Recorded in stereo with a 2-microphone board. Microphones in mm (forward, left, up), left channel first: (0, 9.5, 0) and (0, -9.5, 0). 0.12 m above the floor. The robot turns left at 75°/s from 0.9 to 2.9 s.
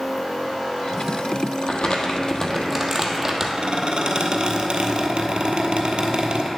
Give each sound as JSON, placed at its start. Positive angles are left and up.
{"t": 1.6, "sound": "crumpling", "azimuth_deg": 80, "distance_m": 1.2}
{"t": 3.6, "sound": "a squeak", "side_deg": -55, "distance_m": 1.1}